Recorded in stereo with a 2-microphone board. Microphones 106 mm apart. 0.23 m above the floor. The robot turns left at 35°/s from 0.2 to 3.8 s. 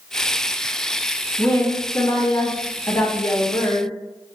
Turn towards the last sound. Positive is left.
turn(degrees=80)